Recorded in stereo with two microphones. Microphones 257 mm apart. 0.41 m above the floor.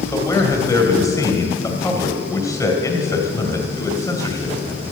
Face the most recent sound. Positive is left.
turn(degrees=15)  # may be behind; listen again after turning